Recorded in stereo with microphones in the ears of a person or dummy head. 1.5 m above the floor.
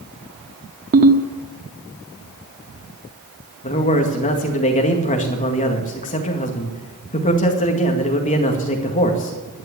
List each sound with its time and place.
0.9 s a ringtone: 40° right (ahead or behind), 1.3 m
3.6 s a man speaking: 35° left (ahead or behind), 2 m